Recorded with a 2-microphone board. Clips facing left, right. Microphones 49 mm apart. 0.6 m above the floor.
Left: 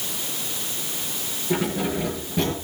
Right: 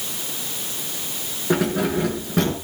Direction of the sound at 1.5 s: 85° right.